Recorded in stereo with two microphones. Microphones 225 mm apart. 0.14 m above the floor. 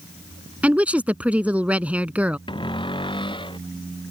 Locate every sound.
0.6 s a woman speaking: 5° right (ahead or behind)
2.5 s a cupboard door: 20° left (ahead or behind)